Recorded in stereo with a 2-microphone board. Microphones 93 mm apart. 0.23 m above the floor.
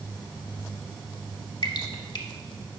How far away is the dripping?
About 0.8 m.